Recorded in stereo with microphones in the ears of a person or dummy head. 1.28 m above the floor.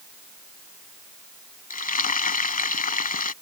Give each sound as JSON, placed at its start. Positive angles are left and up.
{"t": 1.7, "sound": "frying", "side_deg": 45}